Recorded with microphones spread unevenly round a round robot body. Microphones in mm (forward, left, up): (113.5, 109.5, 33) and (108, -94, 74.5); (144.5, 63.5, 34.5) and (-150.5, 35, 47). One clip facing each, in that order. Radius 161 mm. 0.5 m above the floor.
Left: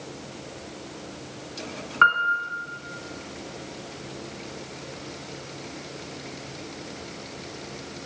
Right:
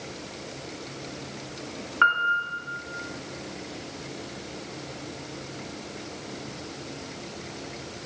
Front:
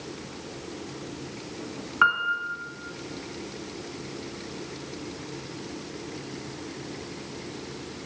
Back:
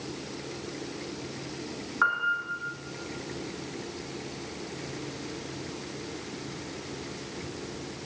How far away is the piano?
About 1.3 m.